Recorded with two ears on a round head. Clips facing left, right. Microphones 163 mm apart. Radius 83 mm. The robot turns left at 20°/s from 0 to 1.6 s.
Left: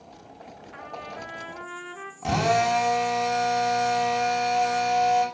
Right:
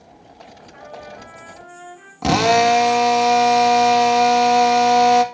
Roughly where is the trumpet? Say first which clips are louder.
Right 2 dB; left.